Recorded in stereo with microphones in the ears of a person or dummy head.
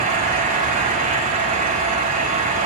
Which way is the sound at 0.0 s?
40° right (ahead or behind).